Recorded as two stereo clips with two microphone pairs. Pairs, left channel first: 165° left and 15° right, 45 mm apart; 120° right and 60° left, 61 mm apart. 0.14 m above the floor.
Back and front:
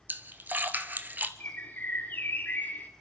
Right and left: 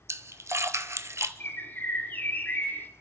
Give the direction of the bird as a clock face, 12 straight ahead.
6 o'clock.